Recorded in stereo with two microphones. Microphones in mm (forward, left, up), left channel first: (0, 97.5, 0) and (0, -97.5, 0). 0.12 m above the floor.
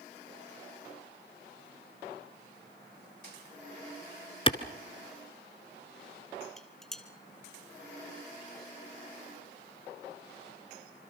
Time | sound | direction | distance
4.5 | a clap | 30° left (ahead or behind) | 1.3 m
6.6 | dishes clattering | centre (ahead or behind) | 2.0 m